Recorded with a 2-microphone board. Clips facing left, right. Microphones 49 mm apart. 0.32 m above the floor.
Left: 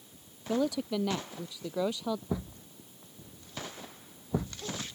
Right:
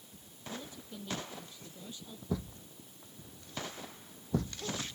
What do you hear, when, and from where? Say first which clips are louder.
0.5 s a woman speaking: left 16 dB; 85° left
2.3 s a thud: left 2 dB; 15° left (ahead or behind)